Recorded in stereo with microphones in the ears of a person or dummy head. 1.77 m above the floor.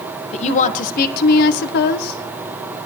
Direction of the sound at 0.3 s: 35° left (ahead or behind).